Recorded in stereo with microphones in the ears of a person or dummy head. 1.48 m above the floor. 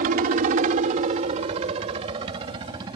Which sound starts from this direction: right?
A helicopter, at 0.0 s.